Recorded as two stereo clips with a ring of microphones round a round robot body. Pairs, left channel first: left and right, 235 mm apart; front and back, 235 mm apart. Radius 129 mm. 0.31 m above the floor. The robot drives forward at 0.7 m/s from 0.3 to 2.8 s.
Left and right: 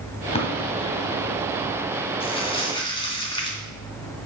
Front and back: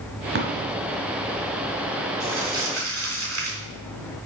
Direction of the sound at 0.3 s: 150° left.